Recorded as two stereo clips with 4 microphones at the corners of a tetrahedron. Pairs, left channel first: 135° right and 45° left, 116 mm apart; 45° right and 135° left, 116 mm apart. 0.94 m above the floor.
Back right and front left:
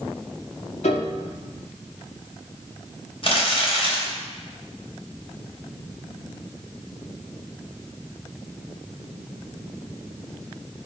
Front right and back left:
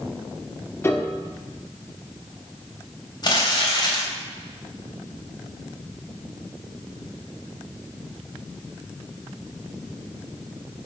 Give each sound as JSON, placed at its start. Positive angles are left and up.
{"t": 0.8, "sound": "a piano", "azimuth_deg": -115, "distance_m": 1.4}
{"t": 3.2, "sound": "crumpling", "azimuth_deg": -95, "distance_m": 3.5}